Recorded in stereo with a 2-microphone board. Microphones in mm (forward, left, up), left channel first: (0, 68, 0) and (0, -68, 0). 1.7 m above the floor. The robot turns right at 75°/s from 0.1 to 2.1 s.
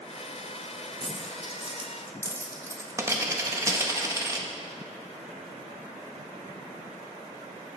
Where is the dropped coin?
15° left (ahead or behind), 1.1 m; by 4.5 s 20° right (ahead or behind), 1.1 m.